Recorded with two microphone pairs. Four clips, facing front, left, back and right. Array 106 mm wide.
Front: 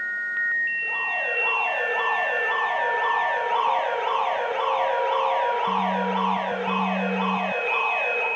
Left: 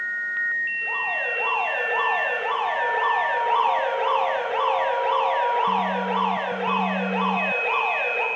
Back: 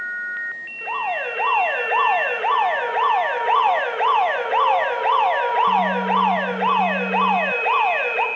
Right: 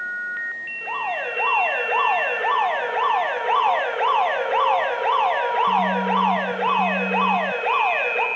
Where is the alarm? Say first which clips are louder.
Right 2 dB, back 4 dB; 155° right, 4 m.